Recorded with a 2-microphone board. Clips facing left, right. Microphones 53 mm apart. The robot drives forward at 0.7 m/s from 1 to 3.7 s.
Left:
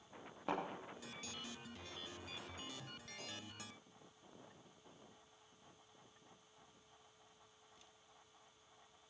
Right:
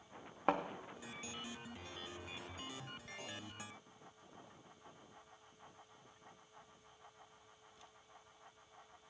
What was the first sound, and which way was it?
A thud, 55° right (ahead or behind).